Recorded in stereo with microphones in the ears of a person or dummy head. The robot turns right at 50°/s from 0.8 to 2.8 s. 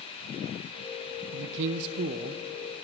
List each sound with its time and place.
1.3 s a man speaking: 90° right, 0.5 m; by 2.4 s 30° right, 0.5 m